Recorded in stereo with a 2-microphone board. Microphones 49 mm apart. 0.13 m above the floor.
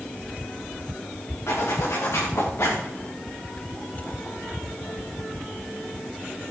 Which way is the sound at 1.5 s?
70° left (ahead or behind).